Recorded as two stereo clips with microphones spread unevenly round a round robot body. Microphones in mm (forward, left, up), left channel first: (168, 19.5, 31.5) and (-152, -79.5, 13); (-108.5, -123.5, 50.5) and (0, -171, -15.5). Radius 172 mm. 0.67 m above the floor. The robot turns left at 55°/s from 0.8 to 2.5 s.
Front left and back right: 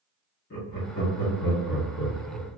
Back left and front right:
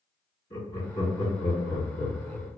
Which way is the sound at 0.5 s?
75° left.